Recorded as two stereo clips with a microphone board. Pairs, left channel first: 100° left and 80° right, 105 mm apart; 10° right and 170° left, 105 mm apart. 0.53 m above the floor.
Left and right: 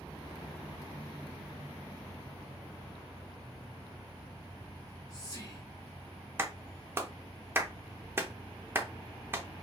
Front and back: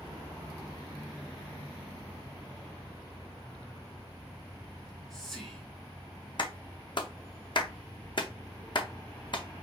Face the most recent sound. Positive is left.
turn(degrees=-20)